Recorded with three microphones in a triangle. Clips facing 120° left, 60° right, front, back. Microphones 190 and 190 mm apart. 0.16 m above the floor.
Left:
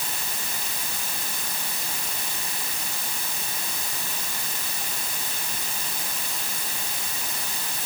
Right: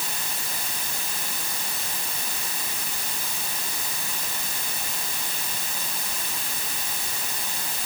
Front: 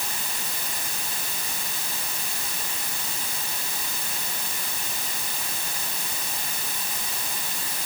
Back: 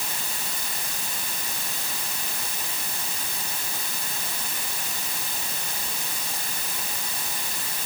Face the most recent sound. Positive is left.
No sound to turn to.